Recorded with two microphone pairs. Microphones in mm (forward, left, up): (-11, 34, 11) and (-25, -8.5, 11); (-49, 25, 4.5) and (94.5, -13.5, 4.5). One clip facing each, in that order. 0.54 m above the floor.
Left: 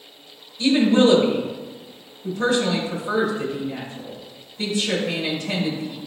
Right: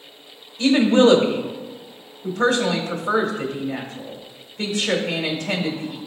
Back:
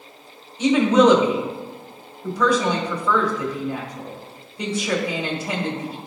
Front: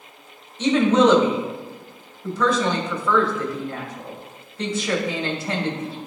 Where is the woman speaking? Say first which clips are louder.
Right 2 dB, back 1 dB; 120° right, 1.7 m.